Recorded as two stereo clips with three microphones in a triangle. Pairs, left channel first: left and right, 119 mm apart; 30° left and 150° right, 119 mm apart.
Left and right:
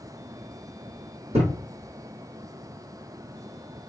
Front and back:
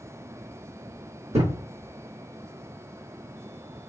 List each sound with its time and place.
1.3 s a thud: 120° right, 2.5 m